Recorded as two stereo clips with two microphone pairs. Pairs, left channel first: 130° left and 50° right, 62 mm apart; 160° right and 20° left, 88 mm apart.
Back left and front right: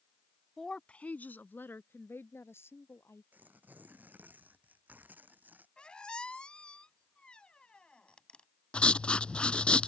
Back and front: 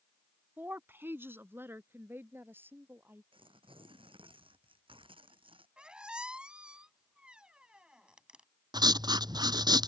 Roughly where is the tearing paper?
Ahead.